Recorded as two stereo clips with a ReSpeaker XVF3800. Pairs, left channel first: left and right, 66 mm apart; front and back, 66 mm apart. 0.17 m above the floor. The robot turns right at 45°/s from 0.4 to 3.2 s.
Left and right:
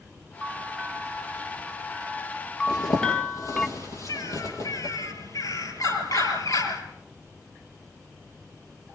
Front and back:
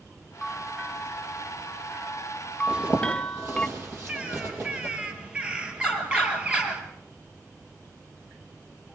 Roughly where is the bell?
Right.